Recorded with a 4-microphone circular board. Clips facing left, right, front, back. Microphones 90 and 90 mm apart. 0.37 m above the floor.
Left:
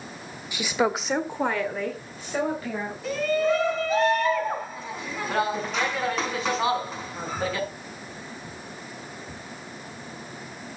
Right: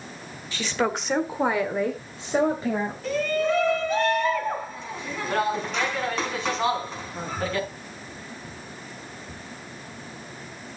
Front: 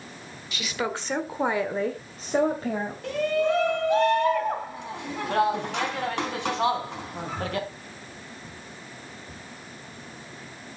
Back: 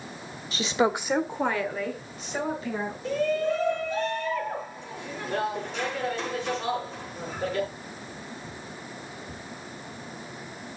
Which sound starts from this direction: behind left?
A woman speaking, at 0.5 s.